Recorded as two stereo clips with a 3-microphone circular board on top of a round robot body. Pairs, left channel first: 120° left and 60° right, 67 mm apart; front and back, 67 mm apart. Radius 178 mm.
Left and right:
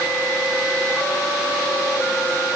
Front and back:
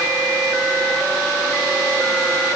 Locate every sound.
Only background noise.